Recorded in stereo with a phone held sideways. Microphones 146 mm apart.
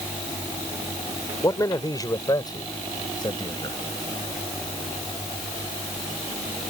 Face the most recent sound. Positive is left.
turn(degrees=30)  # may be behind; listen again after turning